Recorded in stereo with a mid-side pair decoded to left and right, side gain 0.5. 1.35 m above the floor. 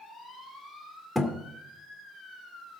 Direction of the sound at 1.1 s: 5° right.